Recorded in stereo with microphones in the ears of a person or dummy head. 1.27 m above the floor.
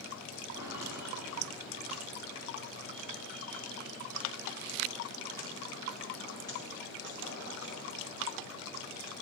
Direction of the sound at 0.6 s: 20° right (ahead or behind).